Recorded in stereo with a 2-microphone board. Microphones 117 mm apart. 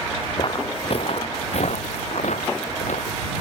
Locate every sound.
0.4 s footsteps: 45° left (ahead or behind); by 3.2 s 85° left